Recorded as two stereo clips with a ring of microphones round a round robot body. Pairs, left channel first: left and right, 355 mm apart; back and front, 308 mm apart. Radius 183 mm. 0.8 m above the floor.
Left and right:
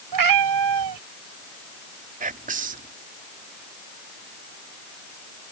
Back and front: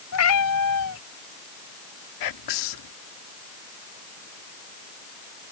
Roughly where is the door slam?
I don't hear a door slam.